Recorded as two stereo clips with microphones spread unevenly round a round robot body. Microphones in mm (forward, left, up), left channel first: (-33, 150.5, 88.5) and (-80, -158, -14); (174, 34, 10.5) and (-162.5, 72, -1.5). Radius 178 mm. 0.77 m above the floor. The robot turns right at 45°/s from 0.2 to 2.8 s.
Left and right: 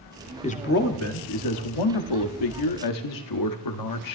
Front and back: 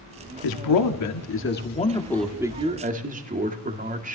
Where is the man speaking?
Straight ahead, 1.9 m; by 4.2 s 110° left, 1.9 m.